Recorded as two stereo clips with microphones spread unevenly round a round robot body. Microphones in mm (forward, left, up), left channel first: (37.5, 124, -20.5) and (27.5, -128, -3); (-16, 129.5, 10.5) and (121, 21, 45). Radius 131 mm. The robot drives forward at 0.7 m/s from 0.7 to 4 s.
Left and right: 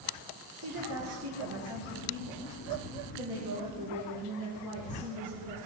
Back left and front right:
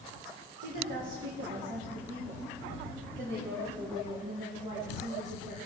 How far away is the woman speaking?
About 2.5 m.